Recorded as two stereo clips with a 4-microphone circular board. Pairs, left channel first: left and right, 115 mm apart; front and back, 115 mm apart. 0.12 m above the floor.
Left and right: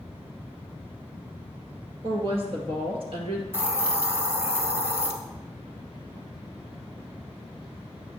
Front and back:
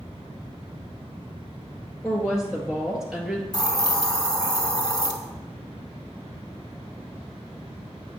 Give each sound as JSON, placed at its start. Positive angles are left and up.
{"t": 2.0, "sound": "a woman speaking", "azimuth_deg": -95, "distance_m": 1.8}
{"t": 3.5, "sound": "a hiss", "azimuth_deg": -30, "distance_m": 1.4}